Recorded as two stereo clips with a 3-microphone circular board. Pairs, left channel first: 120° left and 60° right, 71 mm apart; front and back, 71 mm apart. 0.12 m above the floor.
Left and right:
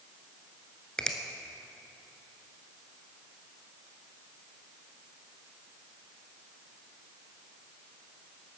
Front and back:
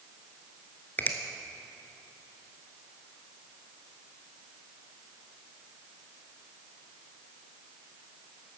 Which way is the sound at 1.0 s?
45° left.